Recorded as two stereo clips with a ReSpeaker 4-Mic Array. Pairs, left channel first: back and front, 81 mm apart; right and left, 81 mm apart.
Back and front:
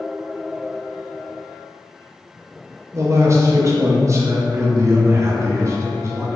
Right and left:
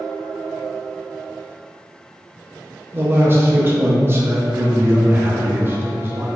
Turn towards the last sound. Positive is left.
turn(degrees=35)